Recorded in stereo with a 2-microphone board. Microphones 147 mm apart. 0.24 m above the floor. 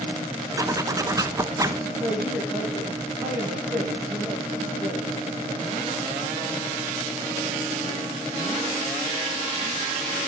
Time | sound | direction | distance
0.6 | a zipper | 20° right (ahead or behind) | 0.6 m
2.0 | a woman speaking | 15° right (ahead or behind) | 7.5 m